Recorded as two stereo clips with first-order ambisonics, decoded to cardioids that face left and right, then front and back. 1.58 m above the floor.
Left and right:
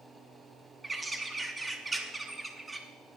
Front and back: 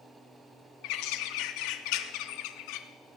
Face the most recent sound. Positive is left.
turn(degrees=-10)